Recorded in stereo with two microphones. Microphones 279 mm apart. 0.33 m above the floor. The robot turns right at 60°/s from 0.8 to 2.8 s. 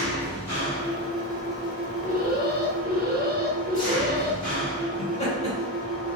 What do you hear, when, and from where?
0.0 s an engine running: 100° right, 1.5 m; by 6.2 s 20° left, 1.5 m
2.0 s an alarm: 120° right, 0.6 m; by 4.4 s 75° right, 0.6 m
5.0 s laughter: 20° left (ahead or behind), 1.6 m